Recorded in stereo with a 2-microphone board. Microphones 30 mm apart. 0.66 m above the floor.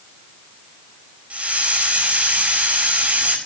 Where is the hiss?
45° right (ahead or behind), 4 m.